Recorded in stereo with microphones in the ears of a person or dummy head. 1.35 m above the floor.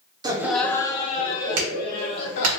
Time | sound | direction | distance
0.2 | laughter | 20° right (ahead or behind) | 0.7 m
1.6 | a clap | 75° right (ahead or behind) | 1.4 m